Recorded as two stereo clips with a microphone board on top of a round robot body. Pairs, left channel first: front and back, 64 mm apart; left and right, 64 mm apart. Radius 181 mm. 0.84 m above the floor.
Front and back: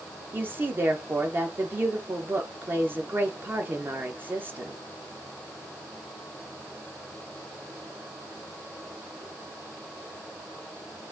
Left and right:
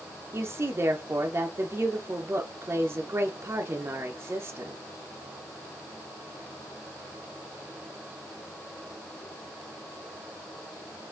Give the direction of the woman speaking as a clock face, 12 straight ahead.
4 o'clock.